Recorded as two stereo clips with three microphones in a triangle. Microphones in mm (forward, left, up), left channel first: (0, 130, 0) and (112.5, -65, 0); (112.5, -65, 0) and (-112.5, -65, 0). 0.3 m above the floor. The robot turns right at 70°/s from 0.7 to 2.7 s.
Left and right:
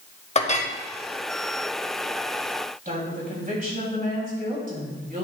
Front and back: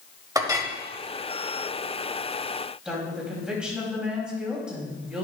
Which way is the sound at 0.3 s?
125° left.